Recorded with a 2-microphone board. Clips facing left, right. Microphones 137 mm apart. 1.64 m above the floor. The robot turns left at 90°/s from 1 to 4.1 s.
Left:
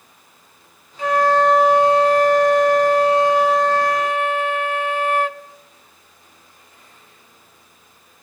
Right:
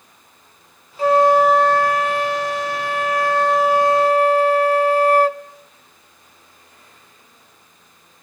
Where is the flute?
130° right, 0.6 m; by 5.4 s 50° right, 0.6 m.